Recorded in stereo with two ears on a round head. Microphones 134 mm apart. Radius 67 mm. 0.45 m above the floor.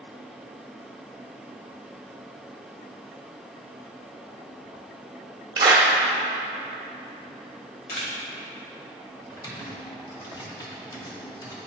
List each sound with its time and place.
5.6 s a clap: 30° right (ahead or behind), 1.1 m
7.9 s a camera shutter: 70° left (ahead or behind), 1.8 m
9.3 s typing on a keyboard: 25° left (ahead or behind), 1.2 m